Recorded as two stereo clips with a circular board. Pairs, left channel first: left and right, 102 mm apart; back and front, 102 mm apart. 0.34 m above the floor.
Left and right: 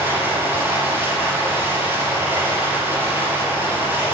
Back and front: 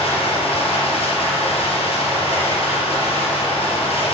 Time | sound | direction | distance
0.0 | running water | 160° right | 4 m